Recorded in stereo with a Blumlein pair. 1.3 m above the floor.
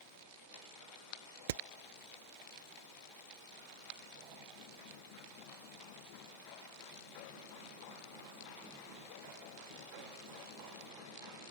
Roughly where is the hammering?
Ahead right.